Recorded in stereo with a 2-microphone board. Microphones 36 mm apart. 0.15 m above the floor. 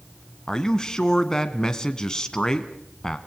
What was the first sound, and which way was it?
A man speaking, 20° left (ahead or behind).